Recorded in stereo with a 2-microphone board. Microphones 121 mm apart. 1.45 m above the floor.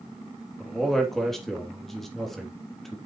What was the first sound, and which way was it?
A man speaking, centre (ahead or behind).